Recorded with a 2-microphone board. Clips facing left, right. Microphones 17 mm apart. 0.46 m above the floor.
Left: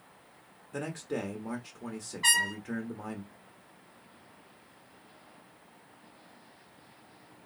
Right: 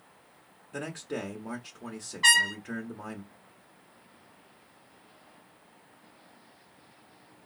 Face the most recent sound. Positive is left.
turn(degrees=-30)  # may be behind; listen again after turning